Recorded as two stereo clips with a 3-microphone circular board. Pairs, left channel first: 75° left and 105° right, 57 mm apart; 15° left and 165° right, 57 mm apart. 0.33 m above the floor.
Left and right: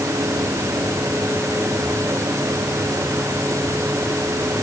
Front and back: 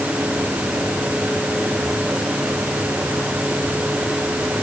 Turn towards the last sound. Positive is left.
No sound to turn to.